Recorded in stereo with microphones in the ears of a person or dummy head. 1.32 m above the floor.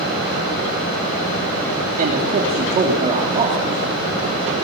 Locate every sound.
2.0 s a man speaking: 40° right (ahead or behind), 2.5 m; by 3.9 s 20° right (ahead or behind), 3 m